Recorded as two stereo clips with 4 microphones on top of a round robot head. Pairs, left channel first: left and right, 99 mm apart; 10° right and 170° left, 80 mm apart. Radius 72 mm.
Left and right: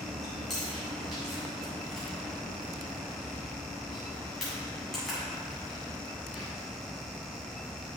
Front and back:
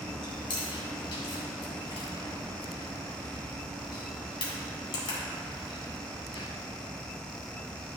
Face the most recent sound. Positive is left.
turn(degrees=0)